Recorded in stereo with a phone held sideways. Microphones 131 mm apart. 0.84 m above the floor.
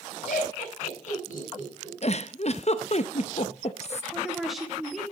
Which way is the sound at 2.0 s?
50° left (ahead or behind).